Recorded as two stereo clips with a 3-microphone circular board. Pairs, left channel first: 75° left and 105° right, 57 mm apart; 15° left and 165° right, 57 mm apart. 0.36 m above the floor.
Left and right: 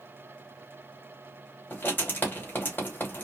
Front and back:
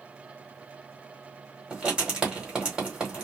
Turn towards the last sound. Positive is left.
turn(degrees=125)